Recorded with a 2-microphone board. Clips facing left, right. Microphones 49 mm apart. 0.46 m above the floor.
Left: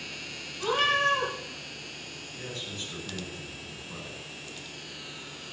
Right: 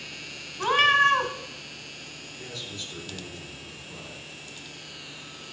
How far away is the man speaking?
About 6 m.